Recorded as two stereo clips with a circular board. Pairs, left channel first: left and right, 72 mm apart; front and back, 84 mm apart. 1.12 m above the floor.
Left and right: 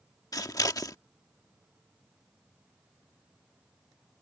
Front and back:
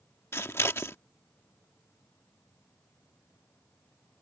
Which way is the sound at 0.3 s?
55° left.